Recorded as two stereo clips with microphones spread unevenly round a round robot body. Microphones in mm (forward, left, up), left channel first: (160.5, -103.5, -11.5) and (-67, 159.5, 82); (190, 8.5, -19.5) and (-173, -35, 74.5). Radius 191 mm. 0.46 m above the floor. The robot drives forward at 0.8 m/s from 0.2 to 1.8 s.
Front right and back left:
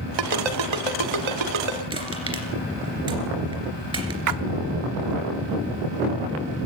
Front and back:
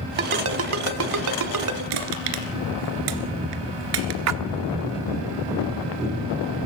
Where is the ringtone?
120° left, 1.4 m; by 1.8 s 150° left, 2.5 m.